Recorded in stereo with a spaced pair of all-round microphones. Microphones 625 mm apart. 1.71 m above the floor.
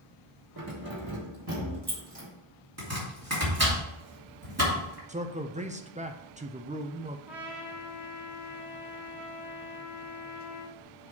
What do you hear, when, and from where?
0.6 s keys jangling: 30° right (ahead or behind), 1.7 m; by 2.3 s 40° right (ahead or behind), 2.5 m
2.8 s chopping: 25° right (ahead or behind), 3 m
5.1 s a man speaking: 10° right (ahead or behind), 0.6 m
7.3 s a trumpet: centre (ahead or behind), 1.4 m